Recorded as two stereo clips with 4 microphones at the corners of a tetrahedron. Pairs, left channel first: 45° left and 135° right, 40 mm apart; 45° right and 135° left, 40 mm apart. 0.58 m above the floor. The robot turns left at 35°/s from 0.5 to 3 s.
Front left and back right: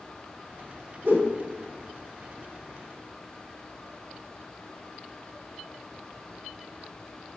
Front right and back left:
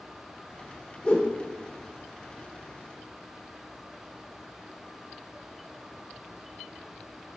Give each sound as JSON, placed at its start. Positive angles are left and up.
{"t": 1.0, "sound": "a whoosh", "azimuth_deg": -110, "distance_m": 1.2}